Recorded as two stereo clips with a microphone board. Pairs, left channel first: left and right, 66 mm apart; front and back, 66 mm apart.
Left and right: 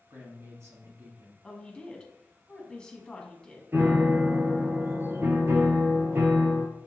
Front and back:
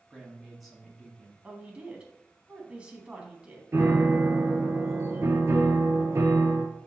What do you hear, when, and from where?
0.1 s a man speaking: 90° right, 1.7 m
1.4 s a woman speaking: 140° left, 1.1 m
3.7 s a piano: 135° right, 0.8 m